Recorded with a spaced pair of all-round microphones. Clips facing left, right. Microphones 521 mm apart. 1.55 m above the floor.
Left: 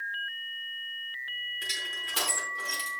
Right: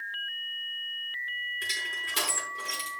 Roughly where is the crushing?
Centre.